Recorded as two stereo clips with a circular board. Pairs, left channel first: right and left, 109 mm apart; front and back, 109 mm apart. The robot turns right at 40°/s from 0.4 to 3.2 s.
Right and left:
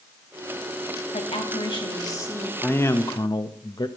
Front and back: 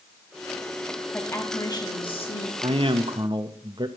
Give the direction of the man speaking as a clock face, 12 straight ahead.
5 o'clock.